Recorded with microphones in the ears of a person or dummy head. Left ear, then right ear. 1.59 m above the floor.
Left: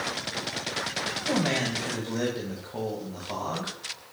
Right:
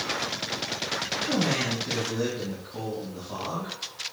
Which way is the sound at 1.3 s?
65° left (ahead or behind).